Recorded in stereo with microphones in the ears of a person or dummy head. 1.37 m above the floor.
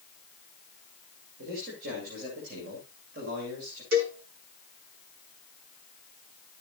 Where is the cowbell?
65° right (ahead or behind), 7.5 m.